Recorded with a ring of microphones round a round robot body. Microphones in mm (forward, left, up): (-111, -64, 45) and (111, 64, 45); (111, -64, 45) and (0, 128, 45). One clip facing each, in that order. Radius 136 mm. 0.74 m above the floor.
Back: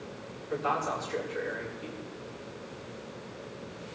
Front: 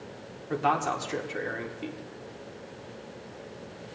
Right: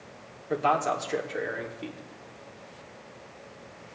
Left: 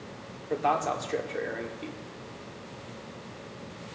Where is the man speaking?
25° left, 2 m.